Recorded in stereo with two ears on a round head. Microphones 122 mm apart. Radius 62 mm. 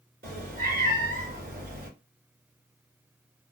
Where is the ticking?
No ticking in this recording.